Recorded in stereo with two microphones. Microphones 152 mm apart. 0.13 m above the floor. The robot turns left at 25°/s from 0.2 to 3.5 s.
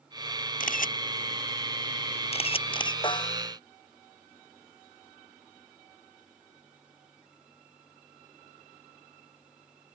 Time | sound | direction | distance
0.6 | a camera shutter | 65° left (ahead or behind) | ?
3.0 | a snare drum | 35° left (ahead or behind) | ?